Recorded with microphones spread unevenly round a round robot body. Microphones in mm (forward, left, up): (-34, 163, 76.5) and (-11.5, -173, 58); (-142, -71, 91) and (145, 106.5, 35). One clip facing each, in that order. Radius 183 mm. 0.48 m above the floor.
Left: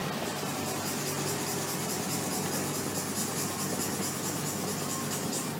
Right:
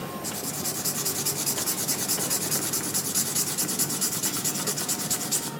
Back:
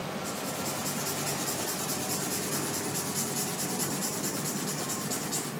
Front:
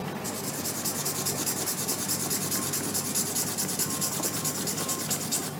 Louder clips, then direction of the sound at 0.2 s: Left 1 dB, even; 35° right.